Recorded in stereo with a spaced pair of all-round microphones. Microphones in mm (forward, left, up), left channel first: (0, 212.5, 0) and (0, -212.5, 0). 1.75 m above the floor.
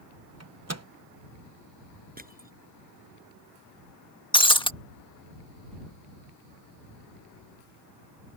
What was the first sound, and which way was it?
A microwave, 35° right (ahead or behind).